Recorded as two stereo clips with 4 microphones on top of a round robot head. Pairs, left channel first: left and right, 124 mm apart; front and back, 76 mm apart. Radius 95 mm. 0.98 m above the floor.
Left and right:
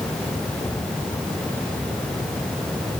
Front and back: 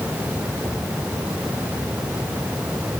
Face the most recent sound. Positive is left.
No sound to turn to.